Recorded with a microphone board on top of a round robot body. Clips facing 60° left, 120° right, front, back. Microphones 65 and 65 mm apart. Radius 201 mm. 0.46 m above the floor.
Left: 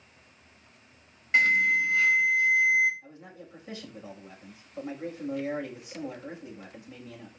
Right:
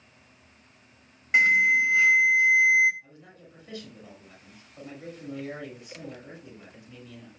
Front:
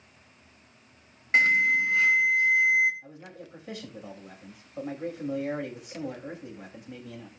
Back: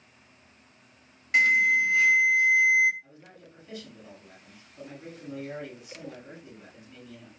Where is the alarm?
50° right, 4 m.